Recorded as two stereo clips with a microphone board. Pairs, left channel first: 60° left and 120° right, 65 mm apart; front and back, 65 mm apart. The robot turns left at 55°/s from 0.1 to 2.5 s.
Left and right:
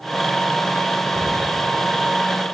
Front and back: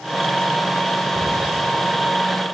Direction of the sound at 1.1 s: 25° right.